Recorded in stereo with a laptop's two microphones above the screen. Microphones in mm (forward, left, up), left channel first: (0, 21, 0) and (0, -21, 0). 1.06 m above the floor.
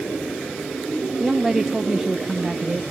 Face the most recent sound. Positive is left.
turn(degrees=-5)  # may be behind; listen again after turning